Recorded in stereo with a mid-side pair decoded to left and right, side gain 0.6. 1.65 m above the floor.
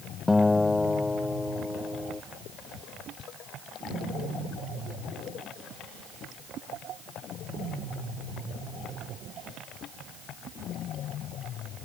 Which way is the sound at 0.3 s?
15° left.